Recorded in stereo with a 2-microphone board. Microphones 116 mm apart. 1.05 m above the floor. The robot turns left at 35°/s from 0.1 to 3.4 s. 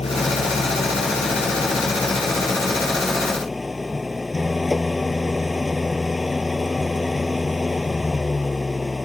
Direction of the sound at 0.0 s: 115° left.